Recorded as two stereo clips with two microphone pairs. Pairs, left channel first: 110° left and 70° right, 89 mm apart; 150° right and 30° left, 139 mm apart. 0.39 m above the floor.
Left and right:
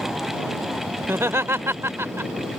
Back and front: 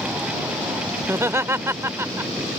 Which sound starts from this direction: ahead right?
Laughter, at 1.0 s.